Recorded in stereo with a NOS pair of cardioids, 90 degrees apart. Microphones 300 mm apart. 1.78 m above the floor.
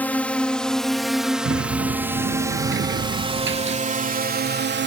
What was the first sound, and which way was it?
A drone, 5° left.